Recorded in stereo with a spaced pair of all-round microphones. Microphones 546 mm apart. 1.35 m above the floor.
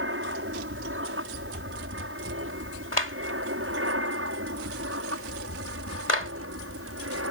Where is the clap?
75° left (ahead or behind).